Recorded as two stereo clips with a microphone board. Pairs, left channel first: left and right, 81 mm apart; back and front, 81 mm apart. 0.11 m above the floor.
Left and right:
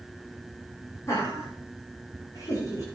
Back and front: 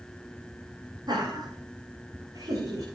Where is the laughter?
35° left, 5 m; by 2.8 s 50° left, 5.5 m.